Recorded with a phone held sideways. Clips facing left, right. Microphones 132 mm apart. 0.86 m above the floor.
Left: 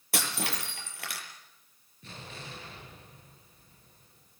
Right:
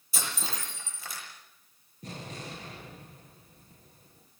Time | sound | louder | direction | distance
0.1 | breaking glass | left 4 dB | 75° left (ahead or behind) | 7.5 m
2.0 | an explosion | right 4 dB | 40° right (ahead or behind) | 9.5 m